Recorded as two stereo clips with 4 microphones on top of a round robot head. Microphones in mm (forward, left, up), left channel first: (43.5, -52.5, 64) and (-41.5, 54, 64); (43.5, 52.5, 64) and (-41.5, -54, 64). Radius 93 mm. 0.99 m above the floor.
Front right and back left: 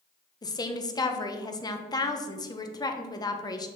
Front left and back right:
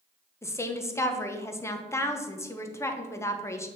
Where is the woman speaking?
10° right, 0.9 m.